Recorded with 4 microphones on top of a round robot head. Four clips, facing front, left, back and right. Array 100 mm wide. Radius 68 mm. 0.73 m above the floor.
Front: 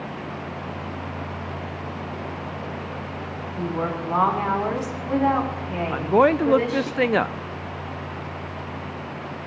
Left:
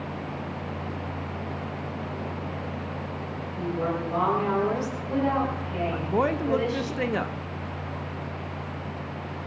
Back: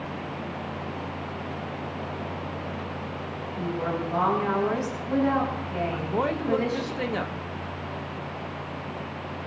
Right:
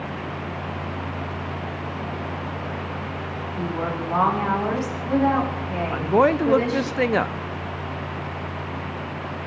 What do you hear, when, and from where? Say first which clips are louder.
3.6 s a woman speaking: right 1 dB, front 2 dB; 30° right, 6.5 m
5.9 s a woman speaking: right 8 dB, front 12 dB; 35° right, 0.7 m